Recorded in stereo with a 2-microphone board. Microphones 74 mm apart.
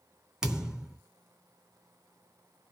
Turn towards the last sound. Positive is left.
turn(degrees=-5)  # may be behind; listen again after turning